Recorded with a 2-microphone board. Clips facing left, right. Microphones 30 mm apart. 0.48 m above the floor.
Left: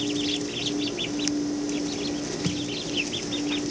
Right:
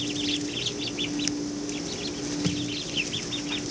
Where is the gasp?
No gasp in this recording.